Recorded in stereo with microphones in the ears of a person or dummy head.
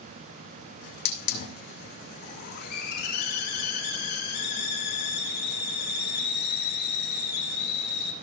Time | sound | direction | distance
0.8 | a hiss | 60° left (ahead or behind) | 1.9 m